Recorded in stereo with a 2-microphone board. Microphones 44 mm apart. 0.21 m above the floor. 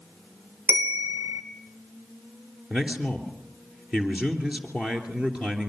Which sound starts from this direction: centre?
A man speaking, at 2.7 s.